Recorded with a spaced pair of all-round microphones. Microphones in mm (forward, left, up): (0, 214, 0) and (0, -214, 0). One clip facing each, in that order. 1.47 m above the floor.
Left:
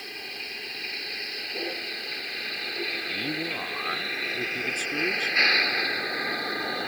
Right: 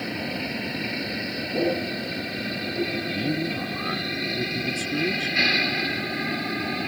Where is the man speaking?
40° right (ahead or behind).